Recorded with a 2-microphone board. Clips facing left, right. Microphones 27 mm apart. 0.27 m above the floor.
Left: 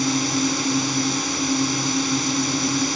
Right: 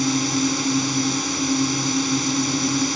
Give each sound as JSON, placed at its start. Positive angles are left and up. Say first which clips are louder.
{"t": 0.0, "sound": "a drone", "louder": "even", "side_deg": 5}